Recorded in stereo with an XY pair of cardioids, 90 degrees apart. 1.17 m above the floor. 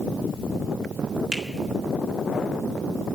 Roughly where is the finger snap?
Ahead right.